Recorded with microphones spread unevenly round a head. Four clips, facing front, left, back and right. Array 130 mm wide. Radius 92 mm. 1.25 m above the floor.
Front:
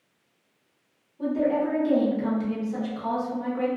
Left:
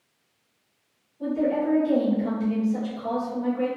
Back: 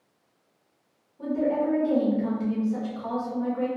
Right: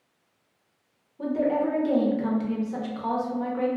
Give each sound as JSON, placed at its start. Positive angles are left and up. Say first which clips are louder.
{"t": 1.2, "sound": "a woman speaking", "louder": "even, front 1 dB", "azimuth_deg": -60, "distance_m": 1.0}